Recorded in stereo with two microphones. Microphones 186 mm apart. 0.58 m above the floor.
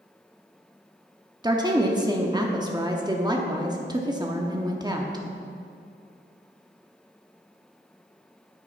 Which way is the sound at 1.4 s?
20° right (ahead or behind).